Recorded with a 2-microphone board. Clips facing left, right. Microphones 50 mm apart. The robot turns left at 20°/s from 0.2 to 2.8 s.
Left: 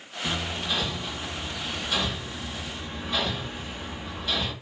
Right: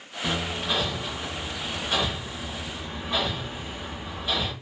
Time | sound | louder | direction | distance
0.2 | hammering | right 2 dB | 70° right (ahead or behind) | 1.1 m